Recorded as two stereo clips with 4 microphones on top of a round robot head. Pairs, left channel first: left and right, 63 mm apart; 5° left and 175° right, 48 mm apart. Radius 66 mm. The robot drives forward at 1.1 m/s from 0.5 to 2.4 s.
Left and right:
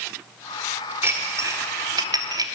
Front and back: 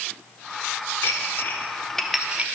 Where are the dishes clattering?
40° right, 1.6 m; by 2.5 s 105° right, 1.1 m.